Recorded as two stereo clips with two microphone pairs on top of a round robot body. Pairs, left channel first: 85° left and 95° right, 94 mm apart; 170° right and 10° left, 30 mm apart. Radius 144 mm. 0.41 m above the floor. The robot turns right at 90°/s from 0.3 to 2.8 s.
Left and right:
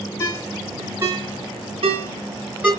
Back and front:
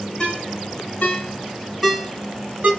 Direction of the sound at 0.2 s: 130° left.